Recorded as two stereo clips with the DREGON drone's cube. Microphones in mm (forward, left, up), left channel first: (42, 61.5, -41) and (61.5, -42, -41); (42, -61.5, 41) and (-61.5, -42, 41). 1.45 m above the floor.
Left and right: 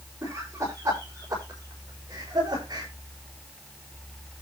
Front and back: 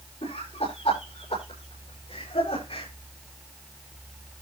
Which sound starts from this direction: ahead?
Laughter, at 0.2 s.